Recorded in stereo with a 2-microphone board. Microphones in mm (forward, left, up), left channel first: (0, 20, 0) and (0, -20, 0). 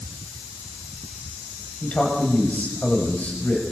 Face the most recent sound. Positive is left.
turn(degrees=40)  # may be behind; listen again after turning